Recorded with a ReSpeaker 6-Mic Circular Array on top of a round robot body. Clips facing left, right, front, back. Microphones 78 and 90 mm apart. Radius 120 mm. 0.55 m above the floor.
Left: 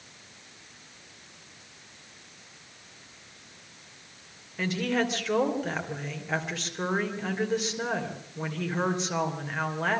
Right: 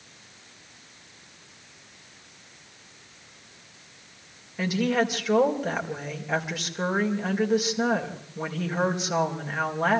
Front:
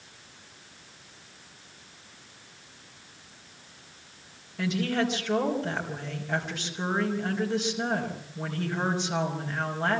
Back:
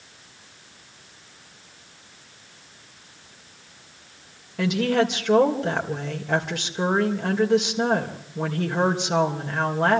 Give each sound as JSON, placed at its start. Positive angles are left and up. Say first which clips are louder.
{"t": 4.6, "sound": "a woman speaking", "louder": "right 3 dB, back 6 dB", "azimuth_deg": -170, "distance_m": 3.0}